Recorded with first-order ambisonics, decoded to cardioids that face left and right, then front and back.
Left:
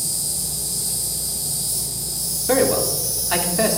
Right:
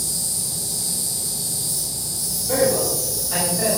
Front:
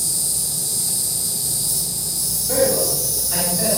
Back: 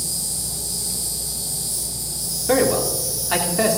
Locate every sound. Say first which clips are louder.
0.0 s an insect: even, front 3 dB; 10° left, 5.5 m
2.5 s a man speaking: left 1 dB, back 1 dB; 135° left, 2.5 m